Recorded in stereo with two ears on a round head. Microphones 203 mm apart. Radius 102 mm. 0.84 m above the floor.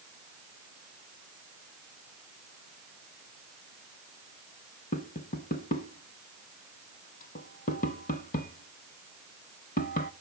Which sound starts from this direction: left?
Tapping, at 4.9 s.